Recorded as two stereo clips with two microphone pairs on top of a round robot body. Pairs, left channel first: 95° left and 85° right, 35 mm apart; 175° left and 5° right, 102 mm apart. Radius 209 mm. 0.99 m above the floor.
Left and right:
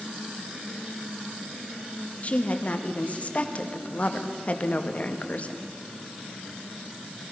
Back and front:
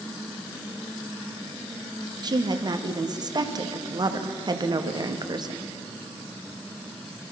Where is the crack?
No crack in this recording.